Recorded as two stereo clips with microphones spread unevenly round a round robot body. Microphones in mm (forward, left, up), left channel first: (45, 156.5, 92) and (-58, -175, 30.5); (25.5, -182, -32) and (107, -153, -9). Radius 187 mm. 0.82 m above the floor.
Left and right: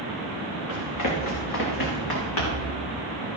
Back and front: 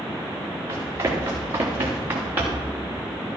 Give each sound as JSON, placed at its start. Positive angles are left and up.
{"t": 0.7, "sound": "running footsteps", "azimuth_deg": 35, "distance_m": 4.0}